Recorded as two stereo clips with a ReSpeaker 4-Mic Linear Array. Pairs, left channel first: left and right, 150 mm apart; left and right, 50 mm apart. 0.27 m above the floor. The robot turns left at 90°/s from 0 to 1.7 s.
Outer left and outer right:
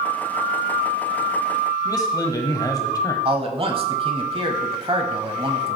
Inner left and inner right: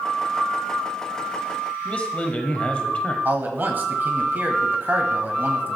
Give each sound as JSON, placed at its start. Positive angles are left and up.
{"t": 1.9, "sound": "a man speaking", "side_deg": 25, "distance_m": 1.3}
{"t": 3.2, "sound": "a man speaking", "side_deg": -40, "distance_m": 1.2}